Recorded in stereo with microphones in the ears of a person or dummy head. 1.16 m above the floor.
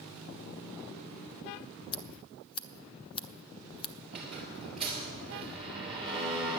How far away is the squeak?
About 2.5 m.